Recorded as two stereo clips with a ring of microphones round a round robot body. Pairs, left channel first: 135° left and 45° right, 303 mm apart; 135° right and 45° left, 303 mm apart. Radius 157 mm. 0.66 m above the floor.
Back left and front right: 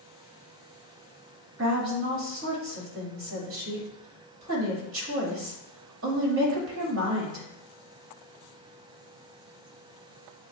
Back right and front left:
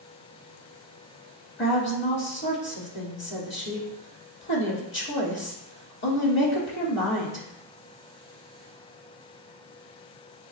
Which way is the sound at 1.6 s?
85° right.